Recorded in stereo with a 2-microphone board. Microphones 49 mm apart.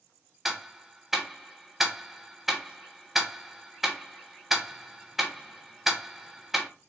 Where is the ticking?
5° right (ahead or behind), 0.7 m.